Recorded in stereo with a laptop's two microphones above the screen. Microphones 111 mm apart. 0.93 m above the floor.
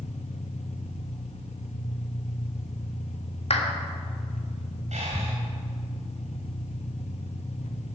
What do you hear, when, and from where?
0.0 s an engine running: 70° left (ahead or behind), 0.8 m
3.5 s a clap: 60° left (ahead or behind), 1.6 m
4.9 s breathing: 90° right, 3.5 m